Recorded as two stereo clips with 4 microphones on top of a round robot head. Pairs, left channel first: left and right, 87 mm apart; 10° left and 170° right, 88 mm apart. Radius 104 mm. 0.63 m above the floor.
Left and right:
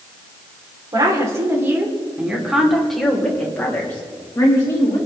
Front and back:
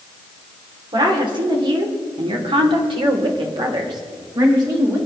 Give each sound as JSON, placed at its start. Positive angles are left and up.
{"t": 0.9, "sound": "a woman speaking", "azimuth_deg": -135, "distance_m": 3.0}